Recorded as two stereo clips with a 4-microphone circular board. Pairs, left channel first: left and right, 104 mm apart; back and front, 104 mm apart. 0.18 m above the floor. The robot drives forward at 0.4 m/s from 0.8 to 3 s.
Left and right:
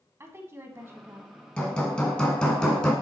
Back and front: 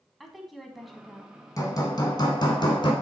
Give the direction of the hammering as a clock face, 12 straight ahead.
7 o'clock.